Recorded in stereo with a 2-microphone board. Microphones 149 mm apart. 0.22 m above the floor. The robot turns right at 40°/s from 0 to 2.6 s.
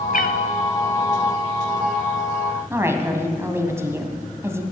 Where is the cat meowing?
70° left (ahead or behind), 0.8 m; by 0.4 s 80° left, 0.8 m.